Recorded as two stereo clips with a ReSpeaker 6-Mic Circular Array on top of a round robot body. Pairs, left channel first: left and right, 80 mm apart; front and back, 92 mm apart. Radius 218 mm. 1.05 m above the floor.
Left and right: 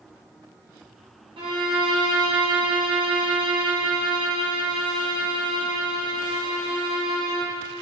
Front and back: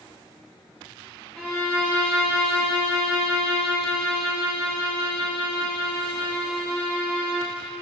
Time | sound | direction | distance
1.4 | a violin | 80° right | 1.2 m